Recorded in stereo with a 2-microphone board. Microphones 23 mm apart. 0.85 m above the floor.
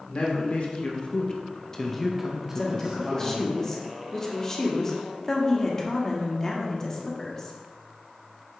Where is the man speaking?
60° left (ahead or behind), 1.8 m; by 3.5 s 50° right (ahead or behind), 1.3 m.